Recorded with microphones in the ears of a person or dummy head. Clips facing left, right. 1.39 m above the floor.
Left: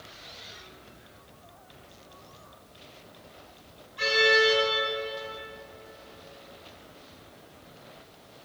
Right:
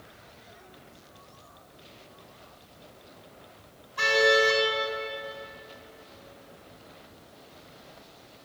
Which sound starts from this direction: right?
A car horn, at 4.0 s.